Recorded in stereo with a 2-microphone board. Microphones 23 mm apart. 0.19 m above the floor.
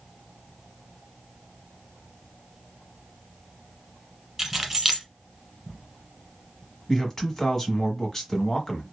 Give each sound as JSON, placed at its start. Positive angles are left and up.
{"t": 4.4, "sound": "keys jangling", "side_deg": -20, "distance_m": 1.3}
{"t": 6.9, "sound": "a man speaking", "side_deg": 25, "distance_m": 1.1}